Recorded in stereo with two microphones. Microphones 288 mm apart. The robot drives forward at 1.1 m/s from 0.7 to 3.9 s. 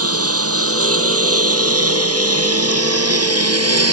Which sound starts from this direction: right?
A lawn mower, at 0.0 s.